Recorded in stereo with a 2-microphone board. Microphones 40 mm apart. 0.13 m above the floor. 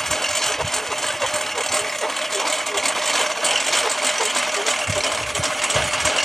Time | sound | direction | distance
0.0 | a lawn mower | 10° left (ahead or behind) | ?